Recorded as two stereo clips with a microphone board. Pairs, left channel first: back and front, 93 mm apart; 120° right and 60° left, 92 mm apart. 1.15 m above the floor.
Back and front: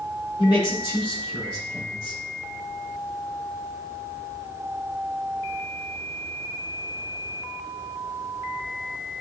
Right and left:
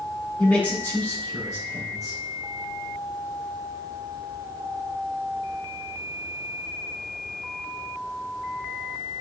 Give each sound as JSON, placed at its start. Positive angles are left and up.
{"t": 0.4, "sound": "a man speaking", "azimuth_deg": 165, "distance_m": 2.5}